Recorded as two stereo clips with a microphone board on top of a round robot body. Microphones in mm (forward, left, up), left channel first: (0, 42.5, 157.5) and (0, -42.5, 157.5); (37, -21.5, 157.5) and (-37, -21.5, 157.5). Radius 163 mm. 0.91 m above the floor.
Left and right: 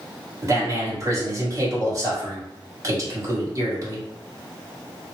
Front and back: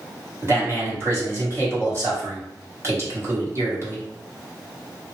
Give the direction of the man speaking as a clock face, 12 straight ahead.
4 o'clock.